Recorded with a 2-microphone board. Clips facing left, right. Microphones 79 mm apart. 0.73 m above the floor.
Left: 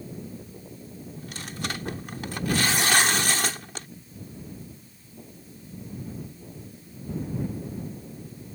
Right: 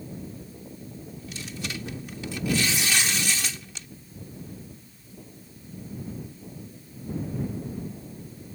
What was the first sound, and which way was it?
Tearing paper, 55° left (ahead or behind).